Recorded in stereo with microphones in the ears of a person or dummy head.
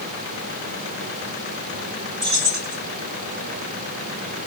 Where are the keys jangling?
55° right (ahead or behind), 2.5 m.